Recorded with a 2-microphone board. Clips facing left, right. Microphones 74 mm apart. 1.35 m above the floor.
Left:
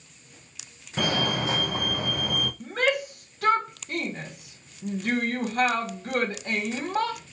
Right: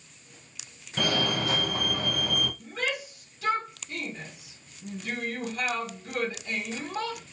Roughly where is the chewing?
I don't hear chewing.